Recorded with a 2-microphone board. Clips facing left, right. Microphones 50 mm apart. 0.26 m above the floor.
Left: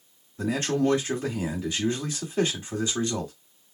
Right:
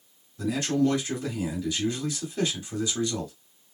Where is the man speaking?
35° left (ahead or behind), 1.8 m.